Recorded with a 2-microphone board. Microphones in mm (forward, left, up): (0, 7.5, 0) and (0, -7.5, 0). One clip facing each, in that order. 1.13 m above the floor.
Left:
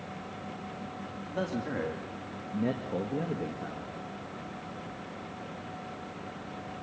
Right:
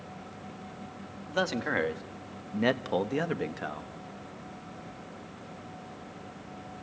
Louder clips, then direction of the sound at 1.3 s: Right 5 dB; 45° right (ahead or behind).